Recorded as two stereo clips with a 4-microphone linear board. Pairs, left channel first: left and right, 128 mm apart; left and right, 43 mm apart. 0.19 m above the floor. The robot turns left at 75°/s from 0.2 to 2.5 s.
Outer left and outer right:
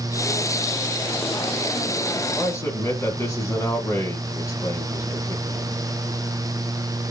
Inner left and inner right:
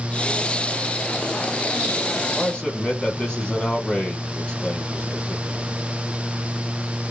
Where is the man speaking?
15° left (ahead or behind), 1.7 m; by 5.7 s 25° left (ahead or behind), 1.7 m.